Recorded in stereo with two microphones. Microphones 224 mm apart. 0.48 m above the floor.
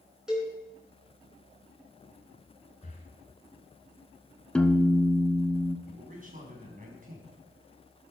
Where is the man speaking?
35° right (ahead or behind), 4.5 m.